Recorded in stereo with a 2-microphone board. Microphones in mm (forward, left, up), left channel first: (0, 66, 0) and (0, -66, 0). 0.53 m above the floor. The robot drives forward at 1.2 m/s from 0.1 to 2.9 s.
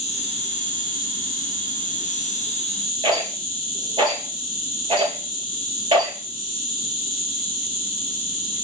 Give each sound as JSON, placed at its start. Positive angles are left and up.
{"t": 0.0, "sound": "an insect", "side_deg": 50, "distance_m": 2.5}
{"t": 3.0, "sound": "a rattle", "side_deg": -35, "distance_m": 4.0}